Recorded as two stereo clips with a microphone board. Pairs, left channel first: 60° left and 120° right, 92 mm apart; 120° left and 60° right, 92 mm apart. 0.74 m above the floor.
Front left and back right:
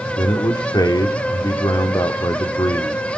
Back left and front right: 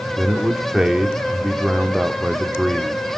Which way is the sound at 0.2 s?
25° left.